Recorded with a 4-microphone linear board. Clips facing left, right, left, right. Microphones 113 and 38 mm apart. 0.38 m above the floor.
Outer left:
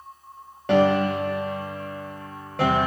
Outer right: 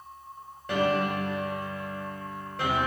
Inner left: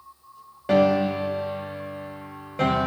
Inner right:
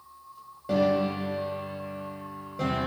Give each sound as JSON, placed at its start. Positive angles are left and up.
{"t": 0.7, "sound": "a piano", "side_deg": 70, "distance_m": 0.7}